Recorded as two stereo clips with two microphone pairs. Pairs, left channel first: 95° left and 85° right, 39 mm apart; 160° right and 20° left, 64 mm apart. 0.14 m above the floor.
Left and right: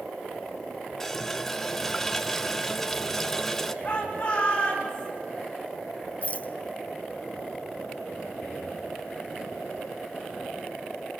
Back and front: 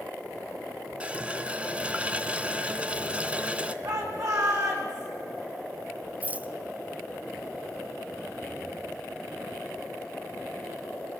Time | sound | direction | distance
1.0 | a running tap | 20° left | 0.8 m
3.8 | a shout | 30° left | 9.5 m
6.2 | a rattle | 70° left | 0.9 m